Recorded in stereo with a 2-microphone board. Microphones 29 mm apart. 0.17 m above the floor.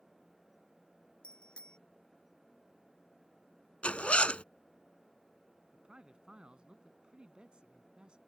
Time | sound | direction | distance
1.2 | a bicycle bell | 40° left (ahead or behind) | ?
3.8 | a zipper | 50° left (ahead or behind) | ?
5.7 | a man speaking | 35° right (ahead or behind) | ?